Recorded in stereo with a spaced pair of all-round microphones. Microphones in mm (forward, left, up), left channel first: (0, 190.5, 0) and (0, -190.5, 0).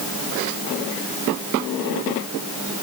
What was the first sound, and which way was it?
Only background noise.